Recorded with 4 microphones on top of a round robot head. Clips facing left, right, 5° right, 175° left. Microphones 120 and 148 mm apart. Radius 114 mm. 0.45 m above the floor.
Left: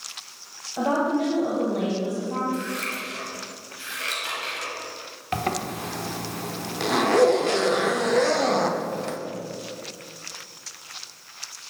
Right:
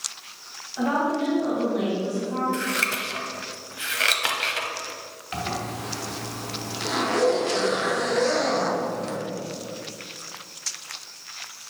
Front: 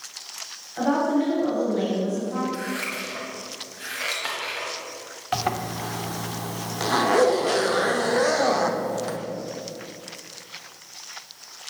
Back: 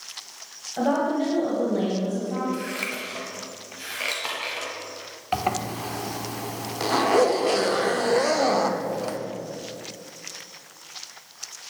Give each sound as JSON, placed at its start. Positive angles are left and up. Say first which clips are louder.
{"t": 0.8, "sound": "a woman speaking", "louder": "left 1 dB, front 1 dB", "azimuth_deg": 130, "distance_m": 3.0}
{"t": 2.5, "sound": "scissors", "louder": "right 2 dB, even", "azimuth_deg": -110, "distance_m": 1.1}
{"t": 5.3, "sound": "a zipper", "louder": "left 3 dB, back 1 dB", "azimuth_deg": 95, "distance_m": 0.8}